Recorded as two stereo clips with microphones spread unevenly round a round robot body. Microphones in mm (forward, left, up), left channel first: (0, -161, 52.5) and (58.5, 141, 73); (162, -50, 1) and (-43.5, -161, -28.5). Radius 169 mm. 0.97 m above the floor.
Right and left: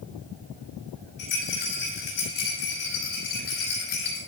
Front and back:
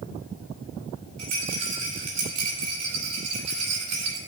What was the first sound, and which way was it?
A rattle, 165° right.